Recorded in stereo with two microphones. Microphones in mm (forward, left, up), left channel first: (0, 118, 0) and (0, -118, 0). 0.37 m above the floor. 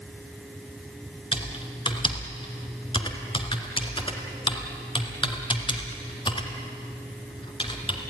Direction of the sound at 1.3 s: 20° left (ahead or behind).